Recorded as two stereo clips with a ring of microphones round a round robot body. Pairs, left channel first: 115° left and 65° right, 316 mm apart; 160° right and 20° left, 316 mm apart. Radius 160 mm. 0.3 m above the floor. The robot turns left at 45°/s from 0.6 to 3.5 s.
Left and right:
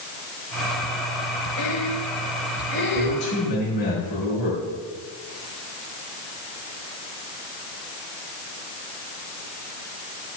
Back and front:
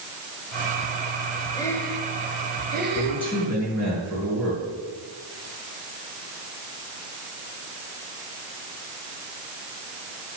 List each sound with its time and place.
1.6 s breathing: 130° left, 1.3 m; by 3.3 s 50° left, 1.3 m
3.0 s a man speaking: 130° left, 5 m; by 4.6 s 105° left, 5 m